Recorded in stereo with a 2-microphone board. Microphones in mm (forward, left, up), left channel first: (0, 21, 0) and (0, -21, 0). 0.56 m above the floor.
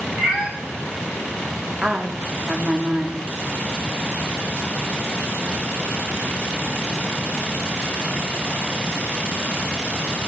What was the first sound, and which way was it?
A cat meowing, 20° right (ahead or behind).